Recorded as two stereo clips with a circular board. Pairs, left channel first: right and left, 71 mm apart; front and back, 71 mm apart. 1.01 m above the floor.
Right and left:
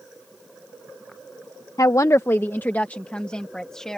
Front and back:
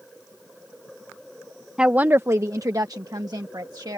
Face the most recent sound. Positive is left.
turn(degrees=-170)